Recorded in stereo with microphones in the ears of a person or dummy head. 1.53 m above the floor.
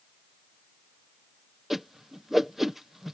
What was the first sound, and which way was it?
A whoosh, centre (ahead or behind).